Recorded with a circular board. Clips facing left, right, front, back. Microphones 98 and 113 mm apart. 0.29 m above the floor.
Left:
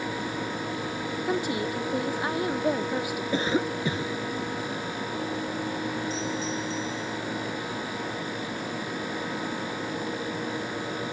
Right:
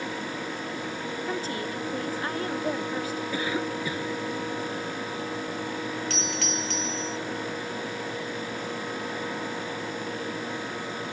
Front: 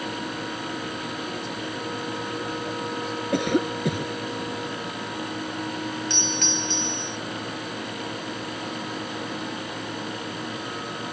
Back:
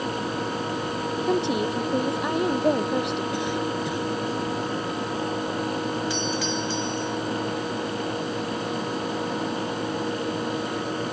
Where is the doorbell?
95° right.